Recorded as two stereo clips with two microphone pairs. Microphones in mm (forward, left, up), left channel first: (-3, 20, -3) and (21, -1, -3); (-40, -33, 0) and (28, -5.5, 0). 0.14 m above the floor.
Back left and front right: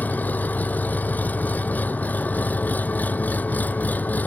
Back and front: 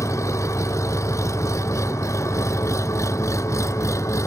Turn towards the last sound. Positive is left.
turn(degrees=155)